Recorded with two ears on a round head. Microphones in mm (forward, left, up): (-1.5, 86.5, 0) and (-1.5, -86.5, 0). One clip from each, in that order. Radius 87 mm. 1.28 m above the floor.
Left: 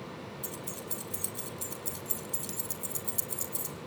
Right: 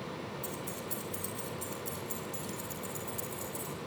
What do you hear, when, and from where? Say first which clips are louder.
0.4 s keys jangling: right 1 dB; 15° left (ahead or behind), 3.5 m; by 3.8 s 45° left (ahead or behind), 3.5 m